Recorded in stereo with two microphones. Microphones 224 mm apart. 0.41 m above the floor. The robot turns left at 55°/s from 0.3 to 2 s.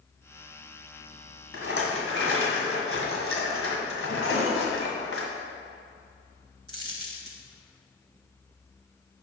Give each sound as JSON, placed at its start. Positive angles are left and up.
{"t": 1.5, "sound": "a rattle", "side_deg": 70, "distance_m": 1.6}
{"t": 4.2, "sound": "a cupboard door", "side_deg": 75, "distance_m": 1.7}
{"t": 6.7, "sound": "a dropped coin", "side_deg": -70, "distance_m": 1.3}